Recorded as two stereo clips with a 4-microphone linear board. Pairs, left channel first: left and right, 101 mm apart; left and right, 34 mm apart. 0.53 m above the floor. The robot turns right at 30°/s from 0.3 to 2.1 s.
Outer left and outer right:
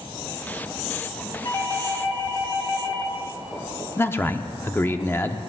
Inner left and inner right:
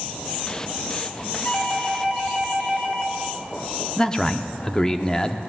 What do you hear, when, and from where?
1.4 s a doorbell: 40° left (ahead or behind), 2 m; by 3.1 s 35° left (ahead or behind), 2 m
4.0 s a man speaking: 20° left (ahead or behind), 0.7 m